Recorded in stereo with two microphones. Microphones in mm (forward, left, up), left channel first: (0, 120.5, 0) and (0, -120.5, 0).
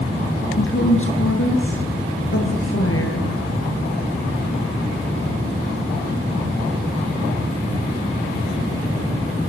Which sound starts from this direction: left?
A woman speaking, at 0.6 s.